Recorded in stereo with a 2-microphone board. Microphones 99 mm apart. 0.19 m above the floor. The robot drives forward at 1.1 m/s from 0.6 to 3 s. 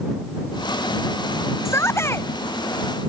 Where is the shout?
25° left (ahead or behind).